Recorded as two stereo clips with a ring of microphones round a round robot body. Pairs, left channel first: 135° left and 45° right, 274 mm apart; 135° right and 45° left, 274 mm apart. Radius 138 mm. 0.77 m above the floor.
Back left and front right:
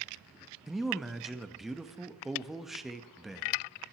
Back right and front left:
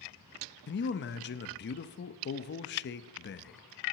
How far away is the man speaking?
About 0.6 m.